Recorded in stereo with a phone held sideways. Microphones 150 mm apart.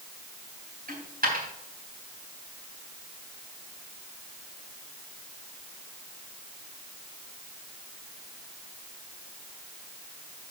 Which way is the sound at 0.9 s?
75° right (ahead or behind).